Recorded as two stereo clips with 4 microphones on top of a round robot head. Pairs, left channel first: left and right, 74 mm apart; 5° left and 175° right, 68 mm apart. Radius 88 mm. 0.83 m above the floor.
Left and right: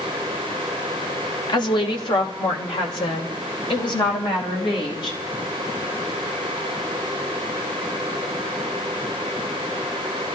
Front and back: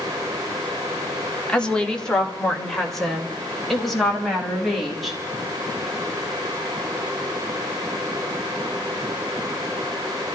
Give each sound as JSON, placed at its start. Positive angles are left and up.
{"t": 1.5, "sound": "a woman speaking", "azimuth_deg": 85, "distance_m": 1.9}